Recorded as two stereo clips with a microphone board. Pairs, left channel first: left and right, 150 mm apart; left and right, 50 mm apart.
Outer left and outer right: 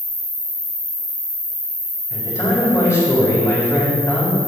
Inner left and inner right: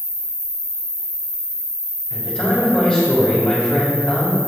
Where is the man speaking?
20° left (ahead or behind), 4.5 m.